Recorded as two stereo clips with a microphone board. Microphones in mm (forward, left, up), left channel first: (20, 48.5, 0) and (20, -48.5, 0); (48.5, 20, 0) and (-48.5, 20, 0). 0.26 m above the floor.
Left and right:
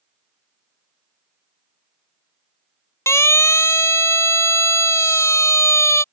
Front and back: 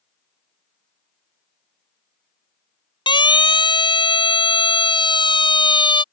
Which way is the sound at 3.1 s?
30° left.